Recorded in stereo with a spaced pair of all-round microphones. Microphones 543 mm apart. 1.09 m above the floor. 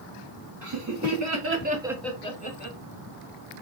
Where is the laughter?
30° right (ahead or behind), 1.4 m; by 2.8 s 20° left (ahead or behind), 1.4 m.